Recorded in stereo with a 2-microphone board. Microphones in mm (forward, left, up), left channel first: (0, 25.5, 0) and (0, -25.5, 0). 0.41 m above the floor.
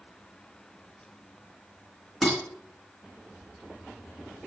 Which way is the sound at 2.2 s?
Centre (ahead or behind).